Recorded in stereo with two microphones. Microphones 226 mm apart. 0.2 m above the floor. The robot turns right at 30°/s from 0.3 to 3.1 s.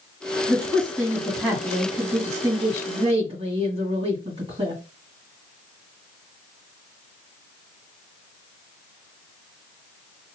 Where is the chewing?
No chewing in this recording.